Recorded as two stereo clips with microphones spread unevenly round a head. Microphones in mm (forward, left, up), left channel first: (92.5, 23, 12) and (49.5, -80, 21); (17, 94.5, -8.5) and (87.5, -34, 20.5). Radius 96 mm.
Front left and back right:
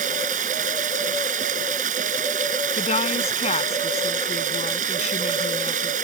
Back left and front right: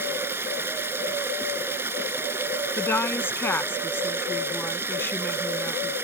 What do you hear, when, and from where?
0.0 s running water: 140° right
2.8 s a woman speaking: 40° left